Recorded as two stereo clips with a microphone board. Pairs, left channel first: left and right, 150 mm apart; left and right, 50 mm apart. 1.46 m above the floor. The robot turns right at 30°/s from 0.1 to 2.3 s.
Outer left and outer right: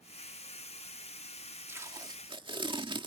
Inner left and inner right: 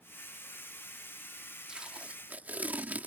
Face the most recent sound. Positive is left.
turn(degrees=-35)  # may be behind; listen again after turning